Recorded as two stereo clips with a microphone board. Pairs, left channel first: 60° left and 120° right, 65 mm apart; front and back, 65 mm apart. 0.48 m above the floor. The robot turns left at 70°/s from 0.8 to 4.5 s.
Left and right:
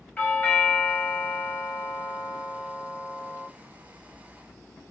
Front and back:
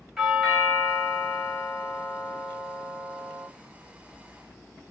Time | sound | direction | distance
0.2 | a doorbell | 95° left | 1.1 m